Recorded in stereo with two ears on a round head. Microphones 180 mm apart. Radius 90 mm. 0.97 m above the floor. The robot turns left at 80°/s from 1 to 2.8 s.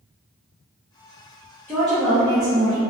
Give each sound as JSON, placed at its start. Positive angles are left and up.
{"t": 1.7, "sound": "a woman speaking", "side_deg": 10, "distance_m": 0.6}